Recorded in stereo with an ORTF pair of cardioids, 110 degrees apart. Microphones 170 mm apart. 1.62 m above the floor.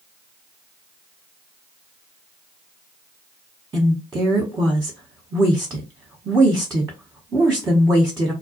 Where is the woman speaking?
15° right, 1.1 m.